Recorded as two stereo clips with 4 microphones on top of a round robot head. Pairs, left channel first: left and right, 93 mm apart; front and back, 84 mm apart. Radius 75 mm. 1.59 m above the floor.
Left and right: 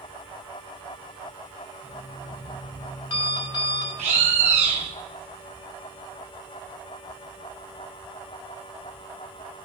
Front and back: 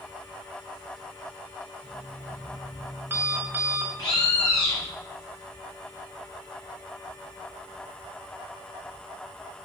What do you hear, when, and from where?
1.8 s an alarm clock: 115° left, 5 m
4.0 s a bird: 65° right, 1.9 m